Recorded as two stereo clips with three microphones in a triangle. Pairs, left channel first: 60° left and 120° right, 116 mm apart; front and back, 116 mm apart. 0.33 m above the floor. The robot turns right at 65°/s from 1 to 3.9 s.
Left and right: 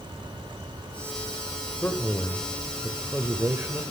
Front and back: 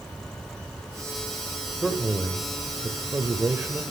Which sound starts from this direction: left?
A man speaking, at 1.8 s.